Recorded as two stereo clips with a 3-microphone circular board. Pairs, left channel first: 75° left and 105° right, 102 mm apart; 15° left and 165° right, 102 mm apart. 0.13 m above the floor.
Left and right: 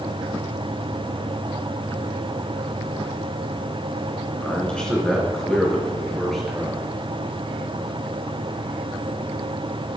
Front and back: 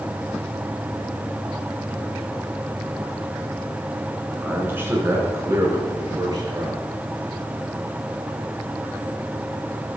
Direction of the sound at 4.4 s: 140° left.